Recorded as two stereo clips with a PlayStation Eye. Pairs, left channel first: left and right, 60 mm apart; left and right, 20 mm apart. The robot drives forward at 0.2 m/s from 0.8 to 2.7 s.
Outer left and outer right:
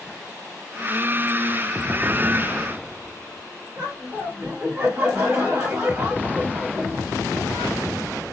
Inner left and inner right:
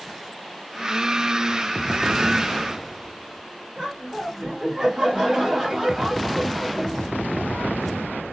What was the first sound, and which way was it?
Laughter, 30° right (ahead or behind).